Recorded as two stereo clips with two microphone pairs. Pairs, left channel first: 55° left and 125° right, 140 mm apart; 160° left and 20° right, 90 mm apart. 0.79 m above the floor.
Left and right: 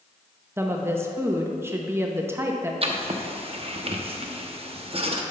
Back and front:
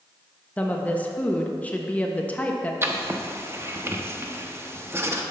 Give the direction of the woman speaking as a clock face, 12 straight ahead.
5 o'clock.